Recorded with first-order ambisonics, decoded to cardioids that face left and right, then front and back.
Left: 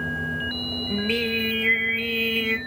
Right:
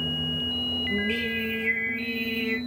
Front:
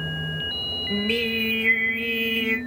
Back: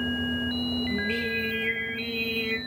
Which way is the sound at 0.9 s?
35° left.